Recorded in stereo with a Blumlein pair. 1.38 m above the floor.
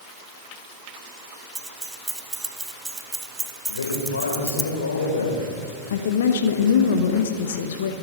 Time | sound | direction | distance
1.6 | keys jangling | 10° right | 1.3 m
3.7 | a man speaking | 70° left | 6 m
5.9 | a woman speaking | 60° left | 1.6 m